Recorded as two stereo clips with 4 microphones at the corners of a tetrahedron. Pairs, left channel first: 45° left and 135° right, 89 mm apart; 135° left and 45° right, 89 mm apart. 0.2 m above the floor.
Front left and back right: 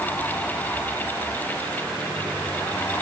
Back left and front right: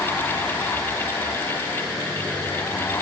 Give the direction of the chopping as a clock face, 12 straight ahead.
I don't hear chopping.